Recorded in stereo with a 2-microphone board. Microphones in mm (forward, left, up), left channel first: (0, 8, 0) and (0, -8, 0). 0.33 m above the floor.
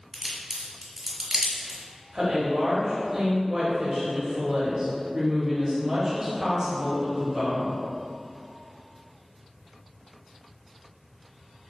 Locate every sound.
0.1 s a crack: 35° right (ahead or behind), 1.2 m
2.1 s a woman speaking: 25° right (ahead or behind), 1.1 m